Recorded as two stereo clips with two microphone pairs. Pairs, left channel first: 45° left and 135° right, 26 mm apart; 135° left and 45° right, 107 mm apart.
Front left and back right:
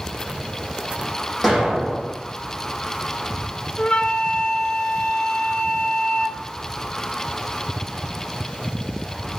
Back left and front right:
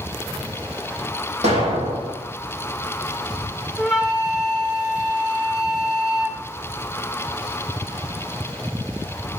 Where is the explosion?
45° right, 8 m.